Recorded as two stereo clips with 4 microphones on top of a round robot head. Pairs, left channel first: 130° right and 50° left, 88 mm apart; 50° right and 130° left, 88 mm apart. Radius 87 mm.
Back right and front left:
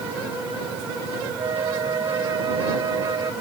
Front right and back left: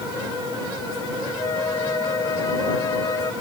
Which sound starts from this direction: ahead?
A flute, at 1.4 s.